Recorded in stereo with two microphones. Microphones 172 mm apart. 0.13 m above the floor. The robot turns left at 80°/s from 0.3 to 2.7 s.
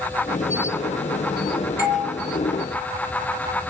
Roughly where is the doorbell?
Left.